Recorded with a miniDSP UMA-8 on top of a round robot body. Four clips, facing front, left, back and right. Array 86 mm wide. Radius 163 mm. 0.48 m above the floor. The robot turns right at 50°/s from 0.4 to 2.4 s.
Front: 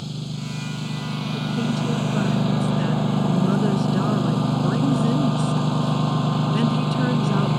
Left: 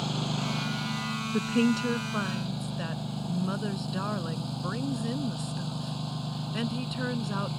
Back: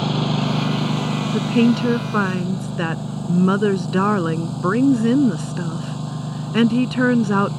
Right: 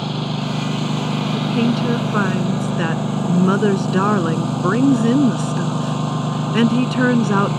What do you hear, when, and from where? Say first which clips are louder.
0.0 s a lawn mower: right 8 dB, back 11 dB; 150° right; by 7.6 s 50° right
1.3 s a woman speaking: right 5 dB, back 9 dB; straight behind; by 7.5 s 125° right